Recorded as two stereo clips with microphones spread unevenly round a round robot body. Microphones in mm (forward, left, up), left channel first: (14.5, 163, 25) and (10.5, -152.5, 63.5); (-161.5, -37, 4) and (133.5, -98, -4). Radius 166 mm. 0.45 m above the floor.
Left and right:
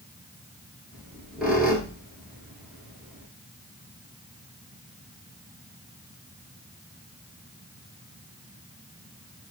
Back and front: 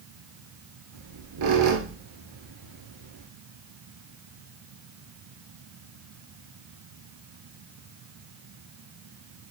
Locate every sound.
0.9 s a squeak: 5° right, 1.0 m